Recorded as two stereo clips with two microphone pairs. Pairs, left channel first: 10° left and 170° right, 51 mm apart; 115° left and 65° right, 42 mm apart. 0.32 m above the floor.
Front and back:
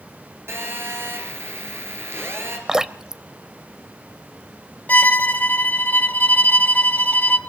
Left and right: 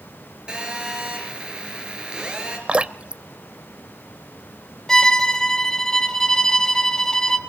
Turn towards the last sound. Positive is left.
turn(degrees=45)